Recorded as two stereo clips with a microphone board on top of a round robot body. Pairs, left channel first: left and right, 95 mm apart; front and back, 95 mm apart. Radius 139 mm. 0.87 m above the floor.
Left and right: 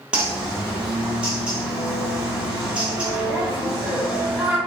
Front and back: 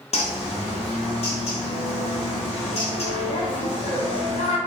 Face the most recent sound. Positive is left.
turn(degrees=-10)